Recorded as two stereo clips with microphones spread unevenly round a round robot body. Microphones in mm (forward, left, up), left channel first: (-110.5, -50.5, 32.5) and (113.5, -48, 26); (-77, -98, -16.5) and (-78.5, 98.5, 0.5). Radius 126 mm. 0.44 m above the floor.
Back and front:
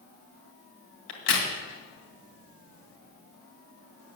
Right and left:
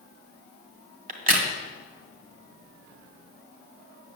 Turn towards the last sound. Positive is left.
turn(degrees=135)